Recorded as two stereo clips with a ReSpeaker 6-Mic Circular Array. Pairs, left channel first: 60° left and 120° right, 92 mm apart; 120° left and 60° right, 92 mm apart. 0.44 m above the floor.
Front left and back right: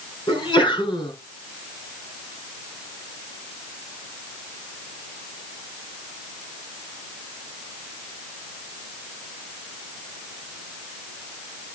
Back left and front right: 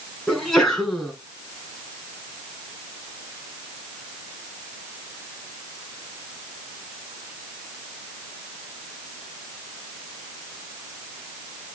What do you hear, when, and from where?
0.3 s a sneeze: 35° left, 6 m